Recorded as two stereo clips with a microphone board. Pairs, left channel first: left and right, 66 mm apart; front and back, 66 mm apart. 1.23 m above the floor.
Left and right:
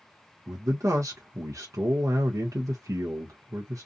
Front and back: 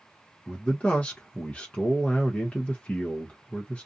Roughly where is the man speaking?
Ahead right.